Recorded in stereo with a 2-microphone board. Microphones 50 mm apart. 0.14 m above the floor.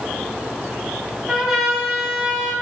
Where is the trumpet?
10° right (ahead or behind), 1.0 m.